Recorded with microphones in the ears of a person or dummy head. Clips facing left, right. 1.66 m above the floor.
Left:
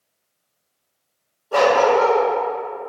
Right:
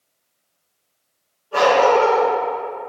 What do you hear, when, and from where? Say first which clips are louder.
1.5 s a dog barking: even; 65° left (ahead or behind), 2.5 m